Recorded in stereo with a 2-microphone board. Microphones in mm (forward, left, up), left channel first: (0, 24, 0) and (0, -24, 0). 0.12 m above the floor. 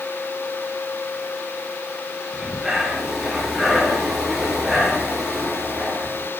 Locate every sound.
2.3 s breathing: 5° right (ahead or behind), 2.5 m